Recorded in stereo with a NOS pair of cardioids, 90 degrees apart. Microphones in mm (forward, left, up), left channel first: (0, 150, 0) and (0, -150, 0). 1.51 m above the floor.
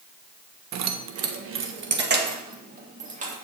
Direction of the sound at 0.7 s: 70° right.